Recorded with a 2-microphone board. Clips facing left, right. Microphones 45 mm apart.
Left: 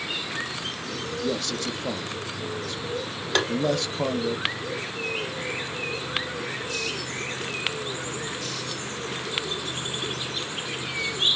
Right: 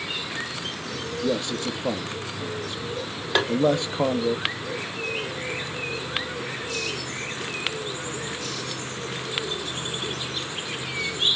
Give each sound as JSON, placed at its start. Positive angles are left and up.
{"t": 1.2, "sound": "a man speaking", "side_deg": -20, "distance_m": 0.6}
{"t": 3.4, "sound": "tapping", "side_deg": -10, "distance_m": 0.7}